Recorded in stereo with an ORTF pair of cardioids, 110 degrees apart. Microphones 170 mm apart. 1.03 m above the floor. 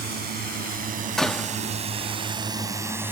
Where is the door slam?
5° left.